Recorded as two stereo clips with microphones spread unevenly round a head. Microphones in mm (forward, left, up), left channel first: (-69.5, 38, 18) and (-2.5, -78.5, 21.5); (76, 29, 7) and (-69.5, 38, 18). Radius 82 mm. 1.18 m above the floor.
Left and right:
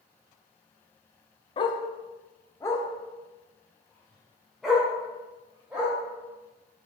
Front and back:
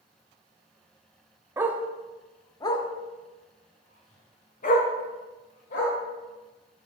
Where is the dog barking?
130° left, 0.7 m; by 6.0 s 25° left, 2 m.